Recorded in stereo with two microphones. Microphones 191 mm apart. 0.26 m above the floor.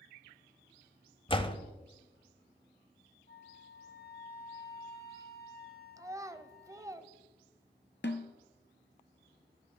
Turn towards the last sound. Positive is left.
turn(degrees=65)  # may be behind; listen again after turning